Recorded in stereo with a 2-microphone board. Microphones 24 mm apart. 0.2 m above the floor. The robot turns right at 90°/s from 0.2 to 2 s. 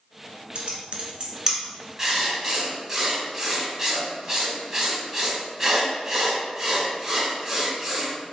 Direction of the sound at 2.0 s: 15° right (ahead or behind).